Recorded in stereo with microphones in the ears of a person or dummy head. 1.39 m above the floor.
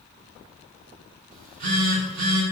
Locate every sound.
1.3 s a phone buzzing: 50° right (ahead or behind), 0.9 m